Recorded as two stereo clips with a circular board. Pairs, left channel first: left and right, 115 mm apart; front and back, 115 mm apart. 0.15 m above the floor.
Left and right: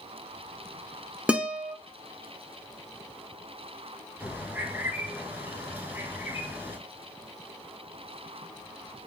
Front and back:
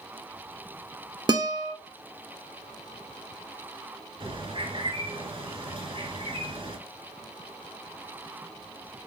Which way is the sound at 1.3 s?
165° right.